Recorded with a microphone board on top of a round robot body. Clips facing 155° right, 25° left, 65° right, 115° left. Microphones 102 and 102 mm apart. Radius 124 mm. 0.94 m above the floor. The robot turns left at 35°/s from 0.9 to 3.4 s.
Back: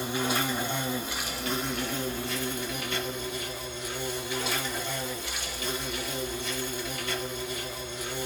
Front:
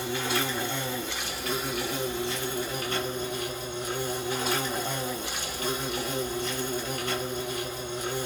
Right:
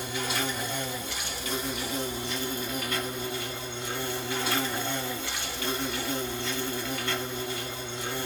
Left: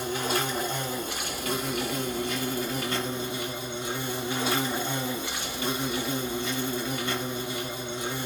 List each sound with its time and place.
0.0 s an insect: 135° left, 1.9 m; by 8.2 s 45° left, 1.9 m